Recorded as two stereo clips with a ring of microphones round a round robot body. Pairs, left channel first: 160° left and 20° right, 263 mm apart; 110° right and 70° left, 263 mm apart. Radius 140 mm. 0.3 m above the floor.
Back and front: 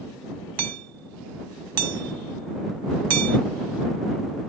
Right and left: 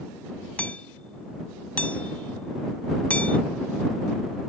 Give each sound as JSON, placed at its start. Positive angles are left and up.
{"t": 0.6, "sound": "hammering", "azimuth_deg": -30}